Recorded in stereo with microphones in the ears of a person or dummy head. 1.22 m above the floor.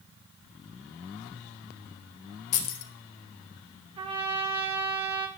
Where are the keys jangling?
60° left (ahead or behind), 0.8 m.